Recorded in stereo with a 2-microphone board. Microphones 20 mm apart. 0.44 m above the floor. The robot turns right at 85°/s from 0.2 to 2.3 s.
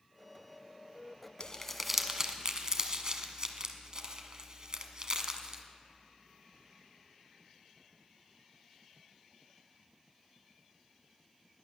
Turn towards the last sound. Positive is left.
turn(degrees=-35)  # may be behind; listen again after turning